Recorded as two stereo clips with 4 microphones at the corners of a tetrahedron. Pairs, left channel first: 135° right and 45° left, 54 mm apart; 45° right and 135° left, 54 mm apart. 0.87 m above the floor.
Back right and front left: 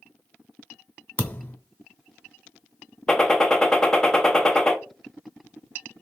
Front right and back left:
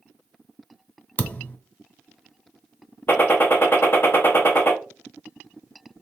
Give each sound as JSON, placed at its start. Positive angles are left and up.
{"t": 1.2, "sound": "a thud", "azimuth_deg": -90, "distance_m": 0.7}
{"t": 3.1, "sound": "a gunshot", "azimuth_deg": -65, "distance_m": 0.8}